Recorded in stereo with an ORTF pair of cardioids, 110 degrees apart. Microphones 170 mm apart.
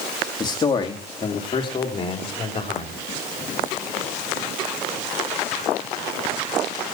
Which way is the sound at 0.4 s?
25° left.